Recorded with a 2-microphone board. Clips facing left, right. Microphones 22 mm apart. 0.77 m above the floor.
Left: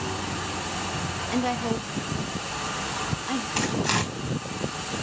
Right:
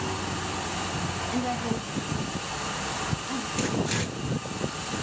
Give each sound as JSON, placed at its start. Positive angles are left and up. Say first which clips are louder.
{"t": 1.3, "sound": "a woman speaking", "louder": "left 4 dB", "side_deg": 25, "distance_m": 1.2}
{"t": 3.6, "sound": "tearing paper", "louder": "left 3 dB", "side_deg": 70, "distance_m": 6.0}